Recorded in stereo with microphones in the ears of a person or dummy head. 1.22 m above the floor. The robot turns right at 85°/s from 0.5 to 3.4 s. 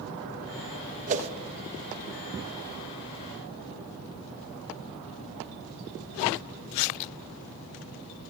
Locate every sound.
1.1 s a whoosh: 40° right (ahead or behind), 0.8 m; by 1.3 s 35° right (ahead or behind), 0.8 m